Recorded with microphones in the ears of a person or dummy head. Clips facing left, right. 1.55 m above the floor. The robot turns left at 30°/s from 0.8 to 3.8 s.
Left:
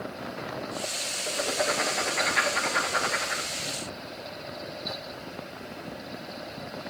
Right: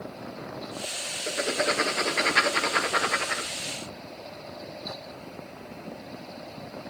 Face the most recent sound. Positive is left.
turn(degrees=-105)